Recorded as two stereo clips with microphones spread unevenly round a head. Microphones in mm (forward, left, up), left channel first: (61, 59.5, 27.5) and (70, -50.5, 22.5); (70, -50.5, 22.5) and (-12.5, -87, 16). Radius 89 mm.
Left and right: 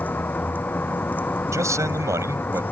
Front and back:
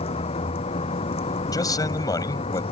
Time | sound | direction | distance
0.0 | a vehicle | 20° left | ?
1.5 | a man speaking | 25° right | ?